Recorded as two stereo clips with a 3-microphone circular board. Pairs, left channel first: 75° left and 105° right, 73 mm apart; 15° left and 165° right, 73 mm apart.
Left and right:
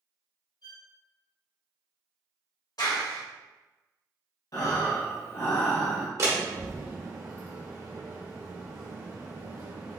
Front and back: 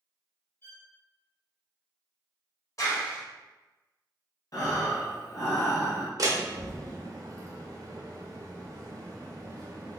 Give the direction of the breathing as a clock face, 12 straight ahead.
10 o'clock.